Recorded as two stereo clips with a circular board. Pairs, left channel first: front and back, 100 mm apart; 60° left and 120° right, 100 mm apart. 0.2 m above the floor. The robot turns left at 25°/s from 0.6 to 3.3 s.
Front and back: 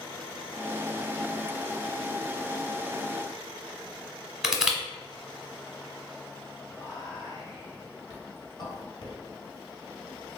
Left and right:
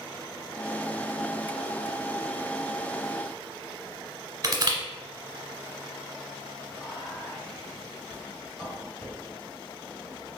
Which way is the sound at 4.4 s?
100° right.